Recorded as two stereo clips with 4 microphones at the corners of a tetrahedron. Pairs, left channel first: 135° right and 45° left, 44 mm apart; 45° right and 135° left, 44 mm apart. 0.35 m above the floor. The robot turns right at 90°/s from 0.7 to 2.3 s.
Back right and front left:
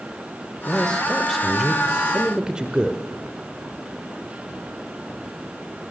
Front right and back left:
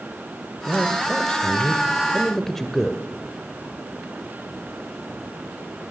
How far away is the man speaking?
About 1.3 m.